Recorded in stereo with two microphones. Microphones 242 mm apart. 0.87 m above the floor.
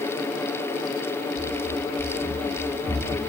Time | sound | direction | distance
1.4 | running footsteps | 45° left (ahead or behind) | 3.5 m